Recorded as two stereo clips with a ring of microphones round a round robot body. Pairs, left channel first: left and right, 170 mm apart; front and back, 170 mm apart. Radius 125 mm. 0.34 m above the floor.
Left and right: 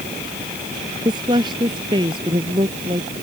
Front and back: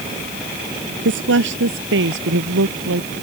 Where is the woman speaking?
165° right; by 3.1 s 160° right.